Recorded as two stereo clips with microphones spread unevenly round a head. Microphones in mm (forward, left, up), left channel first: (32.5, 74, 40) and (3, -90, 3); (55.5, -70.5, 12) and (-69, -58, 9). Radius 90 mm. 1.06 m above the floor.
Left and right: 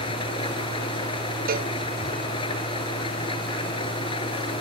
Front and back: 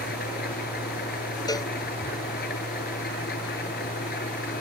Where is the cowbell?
65° right.